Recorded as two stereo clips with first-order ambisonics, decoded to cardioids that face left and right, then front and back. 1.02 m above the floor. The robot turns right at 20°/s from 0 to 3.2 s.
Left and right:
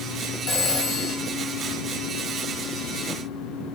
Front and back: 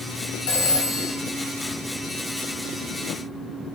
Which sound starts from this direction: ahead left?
A phone ringing, at 0.5 s.